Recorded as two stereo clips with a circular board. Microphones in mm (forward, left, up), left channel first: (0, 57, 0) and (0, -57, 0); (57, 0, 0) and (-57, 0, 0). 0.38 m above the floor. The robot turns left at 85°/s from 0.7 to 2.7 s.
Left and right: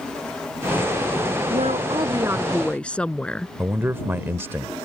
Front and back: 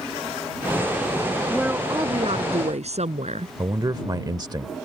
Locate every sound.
1.5 s a woman speaking: 90° right; by 3.5 s 170° left
3.6 s a man speaking: 150° right